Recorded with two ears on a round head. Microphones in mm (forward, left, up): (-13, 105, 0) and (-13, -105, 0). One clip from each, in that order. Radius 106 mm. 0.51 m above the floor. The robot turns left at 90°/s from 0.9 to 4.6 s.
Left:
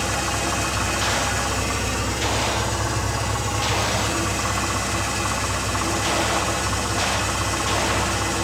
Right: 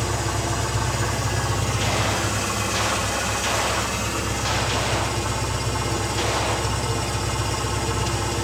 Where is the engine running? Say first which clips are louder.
Left 2 dB; 90° left, 2.5 m; by 8.4 s 120° left, 2.5 m.